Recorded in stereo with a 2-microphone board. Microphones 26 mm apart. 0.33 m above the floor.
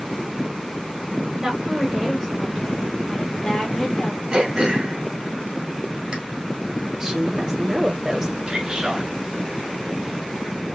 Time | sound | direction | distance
1.4 | a woman speaking | 20° right (ahead or behind) | 1.7 m
4.3 | throat clearing | 30° right (ahead or behind) | 1.7 m
6.9 | a woman speaking | 15° right (ahead or behind) | 1.1 m
8.5 | a man speaking | 25° right (ahead or behind) | 1.6 m